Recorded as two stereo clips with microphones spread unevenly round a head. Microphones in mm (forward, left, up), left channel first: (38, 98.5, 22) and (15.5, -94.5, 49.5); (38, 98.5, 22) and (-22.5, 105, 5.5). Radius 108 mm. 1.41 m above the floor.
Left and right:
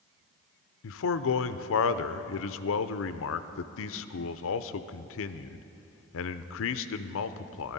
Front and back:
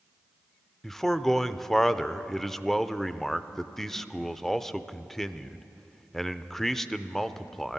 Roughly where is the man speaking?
Left.